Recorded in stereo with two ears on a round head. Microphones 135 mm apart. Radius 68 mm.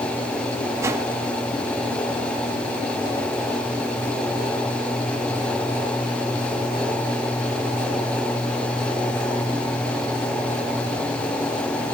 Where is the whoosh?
20° right (ahead or behind), 1.6 m.